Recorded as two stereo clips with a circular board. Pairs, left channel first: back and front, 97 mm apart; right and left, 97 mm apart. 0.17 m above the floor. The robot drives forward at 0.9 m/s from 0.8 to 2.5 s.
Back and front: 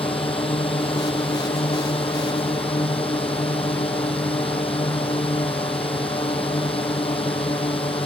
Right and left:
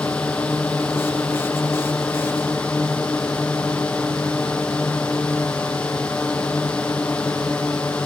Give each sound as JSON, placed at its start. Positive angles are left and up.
{"t": 0.0, "sound": "a drone", "azimuth_deg": -170}